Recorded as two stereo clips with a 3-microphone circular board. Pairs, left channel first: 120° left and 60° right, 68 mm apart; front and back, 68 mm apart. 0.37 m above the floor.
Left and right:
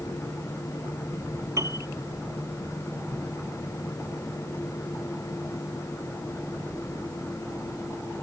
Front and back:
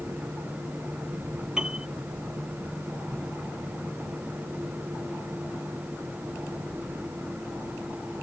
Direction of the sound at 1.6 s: 105° right.